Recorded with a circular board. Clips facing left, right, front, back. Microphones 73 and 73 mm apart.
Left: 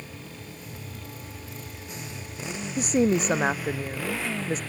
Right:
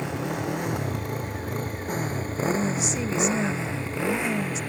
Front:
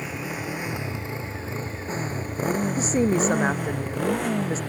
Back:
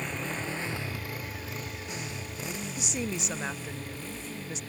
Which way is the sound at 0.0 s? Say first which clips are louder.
Right 14 dB, front 3 dB; 85° right.